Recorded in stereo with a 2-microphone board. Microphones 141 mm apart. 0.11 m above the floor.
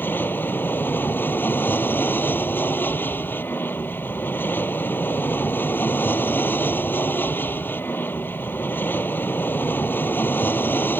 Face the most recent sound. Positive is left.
turn(degrees=15)  # may be behind; listen again after turning